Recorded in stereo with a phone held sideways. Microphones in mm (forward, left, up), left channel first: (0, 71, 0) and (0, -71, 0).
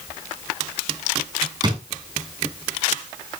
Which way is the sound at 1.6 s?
30° right (ahead or behind).